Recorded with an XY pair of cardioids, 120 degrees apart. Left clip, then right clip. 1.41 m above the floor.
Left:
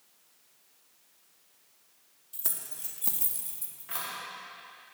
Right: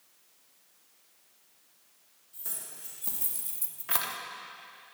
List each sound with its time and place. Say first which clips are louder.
2.3 s keys jangling: left 3 dB; 65° left, 1.4 m; by 4.2 s 60° right, 1.1 m